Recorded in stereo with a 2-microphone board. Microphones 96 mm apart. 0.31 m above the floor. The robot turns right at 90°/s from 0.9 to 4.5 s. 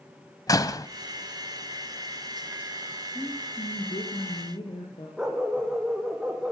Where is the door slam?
40° left (ahead or behind), 1.3 m.